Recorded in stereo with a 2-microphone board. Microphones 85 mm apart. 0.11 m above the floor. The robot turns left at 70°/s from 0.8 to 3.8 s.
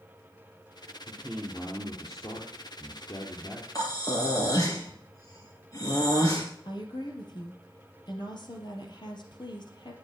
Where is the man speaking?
150° right, 3 m; by 3.6 s 30° left, 3 m.